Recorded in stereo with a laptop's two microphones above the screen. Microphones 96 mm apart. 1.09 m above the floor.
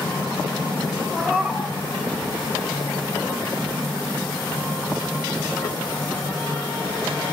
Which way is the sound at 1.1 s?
5° left (ahead or behind).